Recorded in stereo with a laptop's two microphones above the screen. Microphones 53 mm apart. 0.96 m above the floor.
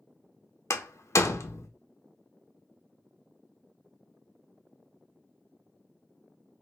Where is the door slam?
70° left (ahead or behind), 0.5 m.